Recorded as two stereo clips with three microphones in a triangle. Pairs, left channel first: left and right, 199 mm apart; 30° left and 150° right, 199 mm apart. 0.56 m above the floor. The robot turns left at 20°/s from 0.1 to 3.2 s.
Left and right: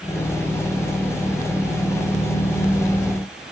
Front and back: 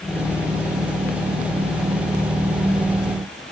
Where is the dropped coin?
No dropped coin in this recording.